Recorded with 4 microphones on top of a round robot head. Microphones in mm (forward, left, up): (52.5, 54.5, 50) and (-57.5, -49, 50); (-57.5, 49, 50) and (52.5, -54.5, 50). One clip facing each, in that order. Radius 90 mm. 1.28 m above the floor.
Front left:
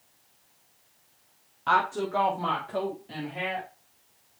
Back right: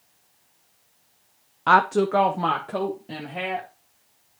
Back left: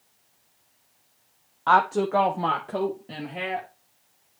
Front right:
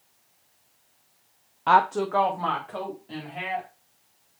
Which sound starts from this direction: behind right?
A woman speaking, at 1.7 s.